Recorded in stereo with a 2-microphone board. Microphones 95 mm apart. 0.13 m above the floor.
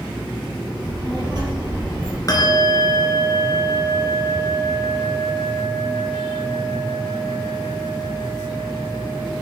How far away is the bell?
About 1.1 m.